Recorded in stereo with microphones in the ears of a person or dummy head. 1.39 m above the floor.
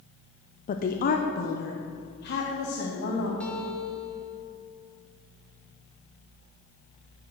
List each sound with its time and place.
0.7 s a woman speaking: 40° left (ahead or behind), 0.5 m; by 3.3 s 55° left (ahead or behind), 1.9 m
3.4 s a guitar: 10° left (ahead or behind), 1.5 m